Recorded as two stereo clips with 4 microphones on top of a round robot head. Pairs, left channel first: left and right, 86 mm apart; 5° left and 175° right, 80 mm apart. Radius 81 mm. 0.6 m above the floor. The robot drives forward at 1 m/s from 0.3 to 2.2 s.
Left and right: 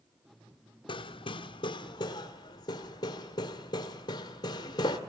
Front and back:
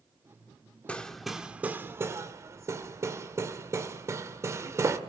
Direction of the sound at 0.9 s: 80° left.